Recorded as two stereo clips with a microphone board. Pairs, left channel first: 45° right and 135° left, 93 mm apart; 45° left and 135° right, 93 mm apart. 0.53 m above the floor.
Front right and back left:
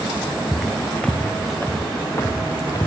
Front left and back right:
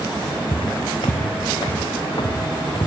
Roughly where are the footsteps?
Ahead left.